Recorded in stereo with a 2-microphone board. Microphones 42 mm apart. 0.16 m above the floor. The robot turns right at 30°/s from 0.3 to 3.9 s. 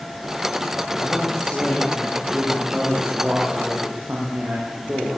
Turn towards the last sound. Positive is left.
turn(degrees=-130)